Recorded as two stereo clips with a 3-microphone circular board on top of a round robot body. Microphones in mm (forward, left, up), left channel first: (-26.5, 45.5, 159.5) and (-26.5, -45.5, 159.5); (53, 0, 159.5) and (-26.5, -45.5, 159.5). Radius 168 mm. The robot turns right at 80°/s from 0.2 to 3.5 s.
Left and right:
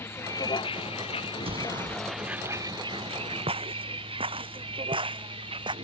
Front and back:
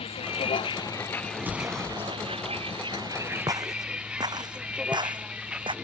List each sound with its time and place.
0.0 s a vehicle: 25° left; by 5.8 s 70° right
1.4 s an explosion: 85° right; by 2.1 s 25° right
3.5 s footsteps: 105° right; by 5.8 s 120° right